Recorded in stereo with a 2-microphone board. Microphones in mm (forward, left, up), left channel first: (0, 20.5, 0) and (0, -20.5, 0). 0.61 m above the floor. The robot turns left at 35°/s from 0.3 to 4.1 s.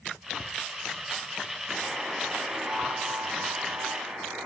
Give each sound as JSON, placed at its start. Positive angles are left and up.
{"t": 1.7, "sound": "a buzzer", "azimuth_deg": 0, "distance_m": 3.5}